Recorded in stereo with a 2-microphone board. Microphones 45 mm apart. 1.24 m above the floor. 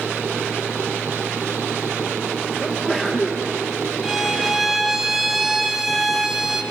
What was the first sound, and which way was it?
A sneeze, 10° left (ahead or behind).